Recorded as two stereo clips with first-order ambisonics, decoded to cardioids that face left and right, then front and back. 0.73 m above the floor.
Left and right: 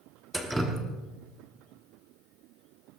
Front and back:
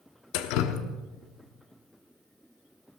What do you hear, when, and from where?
0.3 s dripping: 5° right, 1.2 m